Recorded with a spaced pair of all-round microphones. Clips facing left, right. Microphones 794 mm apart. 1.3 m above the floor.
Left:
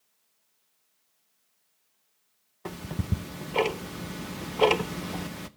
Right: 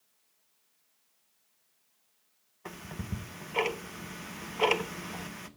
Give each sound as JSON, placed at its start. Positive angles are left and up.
{"t": 2.6, "sound": "ticking", "side_deg": 65, "distance_m": 0.8}